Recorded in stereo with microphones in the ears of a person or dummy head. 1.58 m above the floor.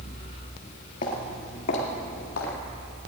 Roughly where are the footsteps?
Left.